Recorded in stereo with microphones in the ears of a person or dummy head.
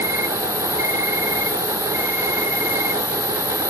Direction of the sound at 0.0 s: 10° right (ahead or behind).